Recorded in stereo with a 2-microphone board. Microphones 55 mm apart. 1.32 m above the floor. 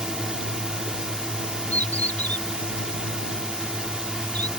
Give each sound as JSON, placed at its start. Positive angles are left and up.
{"t": 0.0, "sound": "a drone", "side_deg": -15}
{"t": 1.7, "sound": "a bird", "side_deg": 30}